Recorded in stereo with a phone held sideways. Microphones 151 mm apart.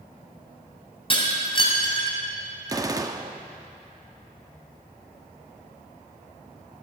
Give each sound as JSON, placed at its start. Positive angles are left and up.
{"t": 1.1, "sound": "breaking glass", "side_deg": 35, "distance_m": 2.0}
{"t": 2.7, "sound": "a gunshot", "side_deg": -25, "distance_m": 0.6}